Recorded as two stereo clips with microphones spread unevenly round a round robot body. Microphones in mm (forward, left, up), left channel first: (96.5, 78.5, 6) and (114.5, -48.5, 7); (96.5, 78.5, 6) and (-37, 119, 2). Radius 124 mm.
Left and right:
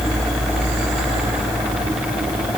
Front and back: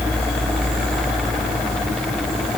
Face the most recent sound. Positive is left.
No sound to turn to.